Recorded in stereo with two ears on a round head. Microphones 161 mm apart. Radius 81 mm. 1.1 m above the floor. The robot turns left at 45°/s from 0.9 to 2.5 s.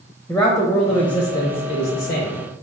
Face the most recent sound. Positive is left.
turn(degrees=85)